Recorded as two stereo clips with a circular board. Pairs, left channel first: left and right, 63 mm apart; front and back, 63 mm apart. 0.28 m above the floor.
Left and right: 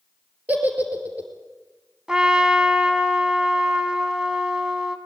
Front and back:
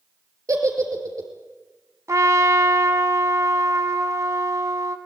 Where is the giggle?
155° right, 3 m.